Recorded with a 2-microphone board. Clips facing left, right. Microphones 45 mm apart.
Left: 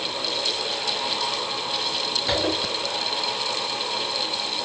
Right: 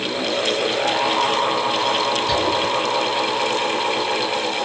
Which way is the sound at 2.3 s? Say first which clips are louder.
Right 4 dB; 80° left.